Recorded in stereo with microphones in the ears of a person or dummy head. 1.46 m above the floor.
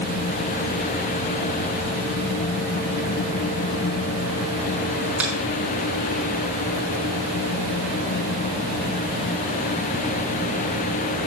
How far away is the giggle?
No giggle in this recording.